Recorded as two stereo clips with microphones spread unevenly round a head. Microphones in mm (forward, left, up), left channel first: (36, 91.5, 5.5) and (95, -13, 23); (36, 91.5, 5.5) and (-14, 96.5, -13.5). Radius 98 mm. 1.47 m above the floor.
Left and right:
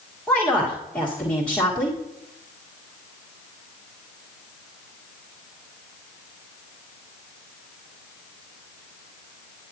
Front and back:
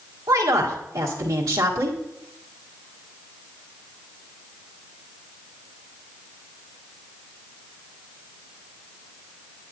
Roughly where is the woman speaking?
Behind right.